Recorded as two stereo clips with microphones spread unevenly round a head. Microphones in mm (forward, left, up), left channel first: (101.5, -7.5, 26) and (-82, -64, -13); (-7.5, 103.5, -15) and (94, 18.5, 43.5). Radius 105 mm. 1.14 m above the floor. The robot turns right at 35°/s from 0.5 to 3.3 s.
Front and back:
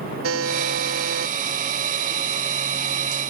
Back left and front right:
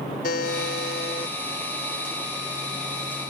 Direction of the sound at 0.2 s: 175° left.